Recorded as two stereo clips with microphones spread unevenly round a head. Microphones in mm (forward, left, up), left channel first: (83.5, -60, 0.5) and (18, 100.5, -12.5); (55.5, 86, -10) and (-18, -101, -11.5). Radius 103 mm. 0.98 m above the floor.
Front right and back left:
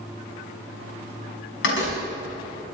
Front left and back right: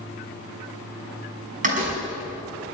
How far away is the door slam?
About 6 m.